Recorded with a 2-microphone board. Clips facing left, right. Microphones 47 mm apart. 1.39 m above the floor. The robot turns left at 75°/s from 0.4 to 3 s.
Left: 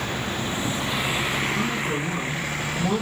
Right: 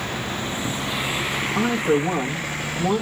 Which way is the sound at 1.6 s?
70° right.